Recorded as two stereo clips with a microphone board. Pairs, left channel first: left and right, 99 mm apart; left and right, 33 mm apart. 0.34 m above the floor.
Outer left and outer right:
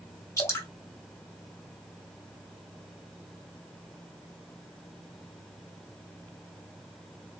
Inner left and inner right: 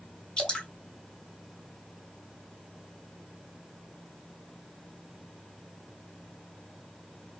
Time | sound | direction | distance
0.4 | dripping | 30° left (ahead or behind) | 1.7 m